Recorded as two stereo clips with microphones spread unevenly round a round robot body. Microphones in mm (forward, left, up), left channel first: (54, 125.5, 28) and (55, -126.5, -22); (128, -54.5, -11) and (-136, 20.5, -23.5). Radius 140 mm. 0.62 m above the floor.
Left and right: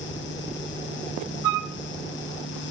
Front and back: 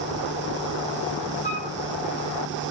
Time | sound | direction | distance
1.4 | a flute | 80° right | 0.5 m